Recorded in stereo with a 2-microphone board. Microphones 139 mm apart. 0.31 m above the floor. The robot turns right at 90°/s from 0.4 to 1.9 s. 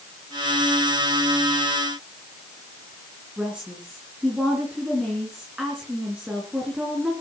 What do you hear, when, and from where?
3.4 s a woman speaking: 5° right (ahead or behind), 3.5 m